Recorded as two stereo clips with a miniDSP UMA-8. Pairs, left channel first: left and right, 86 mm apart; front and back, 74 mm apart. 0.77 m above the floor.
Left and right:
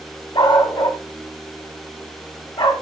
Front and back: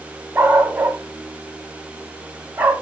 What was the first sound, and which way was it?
A dog barking, 110° left.